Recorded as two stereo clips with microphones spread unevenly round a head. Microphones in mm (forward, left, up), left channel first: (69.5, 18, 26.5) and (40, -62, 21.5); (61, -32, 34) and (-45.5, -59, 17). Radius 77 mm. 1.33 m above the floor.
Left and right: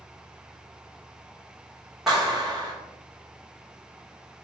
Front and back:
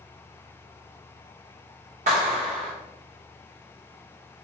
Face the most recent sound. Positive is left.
turn(degrees=160)